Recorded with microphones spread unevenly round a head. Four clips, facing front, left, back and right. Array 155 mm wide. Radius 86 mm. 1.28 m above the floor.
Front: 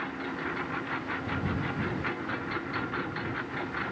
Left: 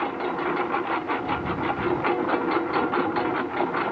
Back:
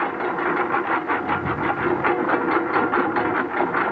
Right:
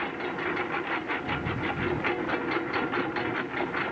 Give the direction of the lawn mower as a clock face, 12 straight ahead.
7 o'clock.